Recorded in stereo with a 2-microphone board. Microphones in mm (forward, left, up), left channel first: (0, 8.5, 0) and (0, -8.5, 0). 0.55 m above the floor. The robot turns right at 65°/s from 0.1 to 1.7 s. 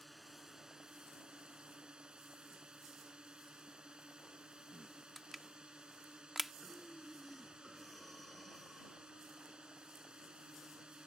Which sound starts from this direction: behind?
A drone, at 0.0 s.